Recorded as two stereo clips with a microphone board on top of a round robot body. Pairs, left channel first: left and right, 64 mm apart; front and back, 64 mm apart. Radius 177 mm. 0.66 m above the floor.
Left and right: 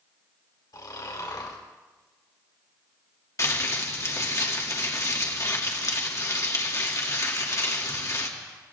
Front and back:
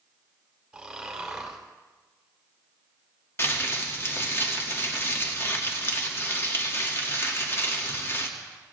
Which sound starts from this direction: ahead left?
Crumpling, at 3.4 s.